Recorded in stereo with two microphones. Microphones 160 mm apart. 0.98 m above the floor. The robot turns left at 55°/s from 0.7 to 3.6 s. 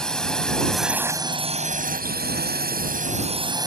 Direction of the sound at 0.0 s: 5° left.